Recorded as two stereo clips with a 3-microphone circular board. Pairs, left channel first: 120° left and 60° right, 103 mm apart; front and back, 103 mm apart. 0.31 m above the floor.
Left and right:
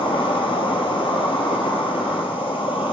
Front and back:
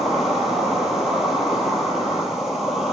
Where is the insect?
95° left, 0.9 m.